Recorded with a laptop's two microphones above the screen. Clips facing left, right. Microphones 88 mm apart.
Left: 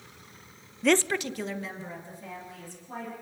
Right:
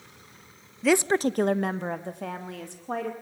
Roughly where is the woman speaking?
Centre.